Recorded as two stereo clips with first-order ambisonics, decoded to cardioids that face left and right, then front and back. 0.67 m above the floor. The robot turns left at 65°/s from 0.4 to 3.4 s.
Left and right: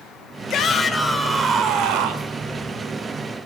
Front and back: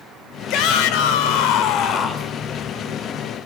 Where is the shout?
40° left, 2 m; by 2.3 s 80° right, 2 m.